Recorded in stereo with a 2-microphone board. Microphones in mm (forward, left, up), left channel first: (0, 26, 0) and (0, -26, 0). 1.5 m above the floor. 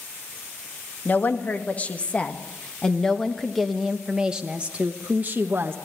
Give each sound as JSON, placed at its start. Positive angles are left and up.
{"t": 1.1, "sound": "a woman speaking", "side_deg": 35, "distance_m": 2.0}